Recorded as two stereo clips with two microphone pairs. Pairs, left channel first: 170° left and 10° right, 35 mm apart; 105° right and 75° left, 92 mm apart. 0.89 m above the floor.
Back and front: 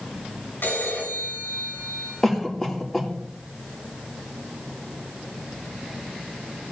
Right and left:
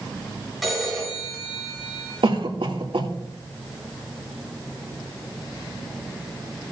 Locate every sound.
0.6 s a phone ringing: 170° left, 7 m
2.2 s a cough: 90° left, 2.0 m